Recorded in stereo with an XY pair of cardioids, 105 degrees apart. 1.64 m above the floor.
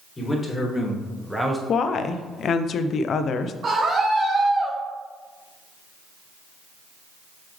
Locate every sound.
0.2 s a man speaking: 25° left, 3 m; by 1.6 s 10° right, 1.7 m
1.7 s a woman speaking: 55° left, 0.7 m
3.6 s a scream: 45° right, 1.5 m